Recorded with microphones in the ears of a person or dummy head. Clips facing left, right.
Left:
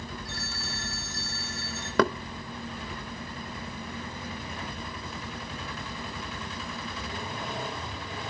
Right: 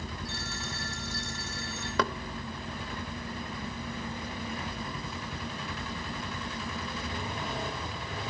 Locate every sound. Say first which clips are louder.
0.2 s a phone ringing: even; 80° right, 4.5 m
2.0 s knocking: left 7 dB; 40° left (ahead or behind), 0.6 m